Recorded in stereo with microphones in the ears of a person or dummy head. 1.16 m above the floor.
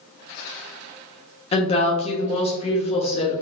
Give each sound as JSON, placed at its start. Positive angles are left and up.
{"t": 1.5, "sound": "a woman speaking", "side_deg": 30, "distance_m": 0.6}